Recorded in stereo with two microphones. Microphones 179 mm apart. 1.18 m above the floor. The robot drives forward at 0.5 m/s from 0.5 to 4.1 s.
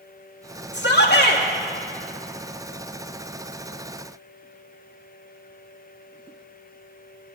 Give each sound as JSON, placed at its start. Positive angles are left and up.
{"t": 0.7, "sound": "a shout", "side_deg": 60, "distance_m": 1.4}